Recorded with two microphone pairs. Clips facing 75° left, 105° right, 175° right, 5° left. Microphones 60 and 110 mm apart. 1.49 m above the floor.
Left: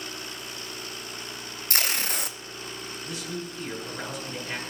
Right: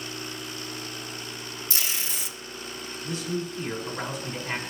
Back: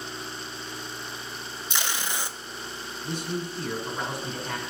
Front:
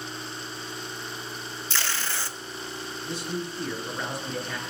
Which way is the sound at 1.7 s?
115° left.